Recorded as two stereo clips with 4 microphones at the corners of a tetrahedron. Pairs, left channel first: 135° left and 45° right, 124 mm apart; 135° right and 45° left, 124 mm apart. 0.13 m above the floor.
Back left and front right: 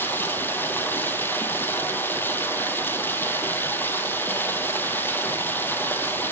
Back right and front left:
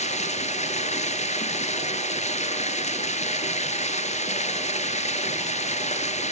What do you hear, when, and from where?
0.0 s running water: 150° right, 1.3 m